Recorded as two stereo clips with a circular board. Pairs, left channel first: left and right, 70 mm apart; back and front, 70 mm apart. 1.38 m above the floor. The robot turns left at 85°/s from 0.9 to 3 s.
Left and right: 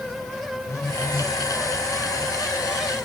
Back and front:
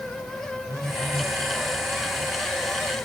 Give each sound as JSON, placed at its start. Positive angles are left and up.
{"t": 0.7, "sound": "a phone buzzing", "azimuth_deg": 40, "distance_m": 1.3}